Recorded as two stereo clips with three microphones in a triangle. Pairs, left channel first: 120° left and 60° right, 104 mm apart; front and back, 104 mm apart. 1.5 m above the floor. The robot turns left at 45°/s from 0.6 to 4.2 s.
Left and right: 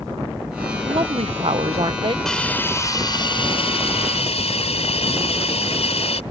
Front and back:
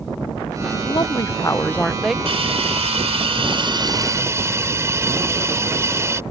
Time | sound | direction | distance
0.8 | a woman speaking | 35° right | ?
2.2 | a hiss | 155° right | ?